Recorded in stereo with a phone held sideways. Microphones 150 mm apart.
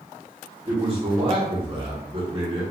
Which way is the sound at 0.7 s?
35° right (ahead or behind).